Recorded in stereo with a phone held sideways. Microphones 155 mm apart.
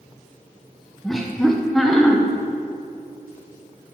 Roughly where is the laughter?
Centre.